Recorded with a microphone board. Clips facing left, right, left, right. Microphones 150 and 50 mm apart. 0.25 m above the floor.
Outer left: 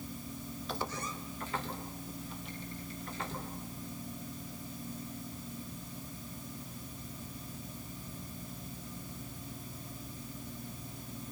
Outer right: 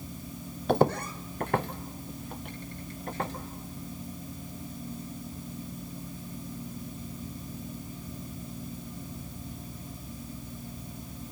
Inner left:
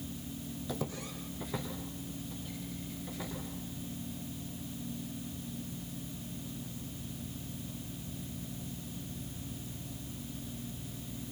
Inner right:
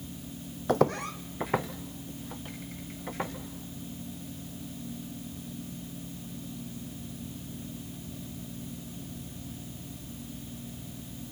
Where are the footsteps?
60° right (ahead or behind), 0.5 m.